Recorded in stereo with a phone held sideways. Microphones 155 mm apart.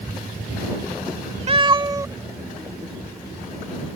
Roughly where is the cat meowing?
Right.